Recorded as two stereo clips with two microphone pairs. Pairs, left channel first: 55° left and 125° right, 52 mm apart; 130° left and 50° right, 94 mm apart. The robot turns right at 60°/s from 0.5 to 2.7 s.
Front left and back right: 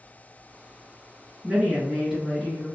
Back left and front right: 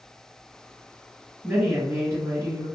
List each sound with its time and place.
1.4 s a woman speaking: 100° right, 1.4 m; by 2.7 s 25° right, 1.4 m